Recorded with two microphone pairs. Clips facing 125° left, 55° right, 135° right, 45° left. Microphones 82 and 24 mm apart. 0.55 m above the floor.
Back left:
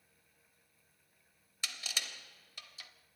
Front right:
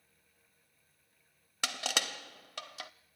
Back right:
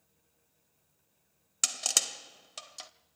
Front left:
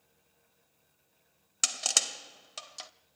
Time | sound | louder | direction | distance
1.6 | crushing | front right 8 dB, front left 1 dB | 40° right | 0.6 m